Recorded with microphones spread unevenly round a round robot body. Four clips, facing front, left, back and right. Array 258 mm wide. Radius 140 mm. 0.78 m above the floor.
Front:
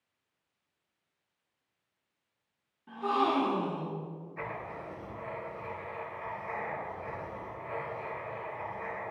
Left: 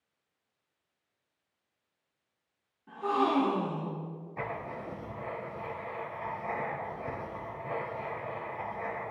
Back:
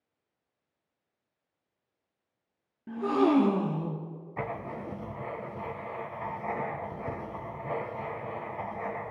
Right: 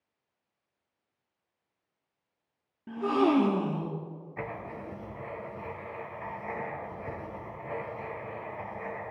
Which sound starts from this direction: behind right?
A gasp, at 2.9 s.